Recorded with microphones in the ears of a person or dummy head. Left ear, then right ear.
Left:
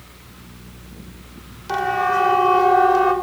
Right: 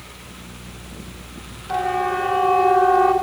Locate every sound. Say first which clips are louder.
1.7 s a siren: left 2 dB; 85° left, 6 m; by 3.1 s 80° left, 6.5 m